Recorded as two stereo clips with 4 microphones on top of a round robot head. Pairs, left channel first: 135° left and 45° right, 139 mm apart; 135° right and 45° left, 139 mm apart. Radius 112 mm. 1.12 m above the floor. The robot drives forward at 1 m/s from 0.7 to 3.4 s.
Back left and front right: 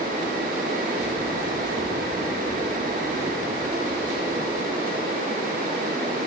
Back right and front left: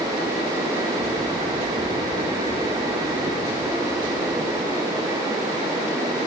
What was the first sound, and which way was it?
Only background noise.